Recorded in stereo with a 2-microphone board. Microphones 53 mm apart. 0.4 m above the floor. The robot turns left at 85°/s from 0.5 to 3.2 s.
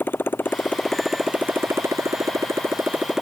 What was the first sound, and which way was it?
A motorcycle, 40° left (ahead or behind).